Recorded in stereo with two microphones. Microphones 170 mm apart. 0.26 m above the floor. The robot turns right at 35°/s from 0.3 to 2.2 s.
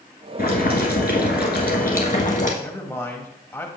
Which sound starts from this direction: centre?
A man speaking, at 2.6 s.